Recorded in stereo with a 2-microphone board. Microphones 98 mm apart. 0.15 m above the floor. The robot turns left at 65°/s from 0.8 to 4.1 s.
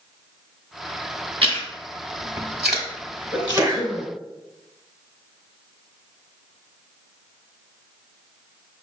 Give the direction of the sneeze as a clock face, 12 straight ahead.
2 o'clock.